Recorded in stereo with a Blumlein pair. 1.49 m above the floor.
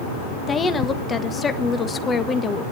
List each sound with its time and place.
0.5 s a woman speaking: 15° left, 1.4 m